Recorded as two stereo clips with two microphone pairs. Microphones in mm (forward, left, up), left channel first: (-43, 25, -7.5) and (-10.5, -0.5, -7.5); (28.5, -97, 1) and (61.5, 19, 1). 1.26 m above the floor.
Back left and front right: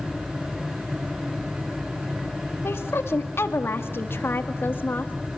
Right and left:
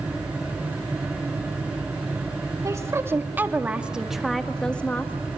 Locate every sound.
2.6 s a woman speaking: 140° left, 2 m; by 5.1 s straight behind, 1.7 m